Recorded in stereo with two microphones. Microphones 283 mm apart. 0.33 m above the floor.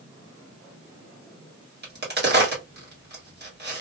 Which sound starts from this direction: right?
A crack, at 1.8 s.